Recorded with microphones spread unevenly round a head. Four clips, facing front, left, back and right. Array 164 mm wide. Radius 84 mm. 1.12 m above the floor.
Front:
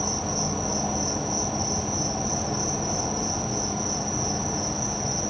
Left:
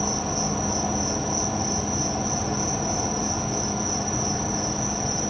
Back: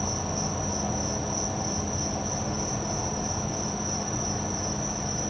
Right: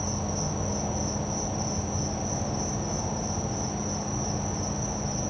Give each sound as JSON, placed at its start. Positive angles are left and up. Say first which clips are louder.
{"t": 0.0, "sound": "an insect", "louder": "left 5 dB, front 2 dB", "azimuth_deg": 85, "distance_m": 1.9}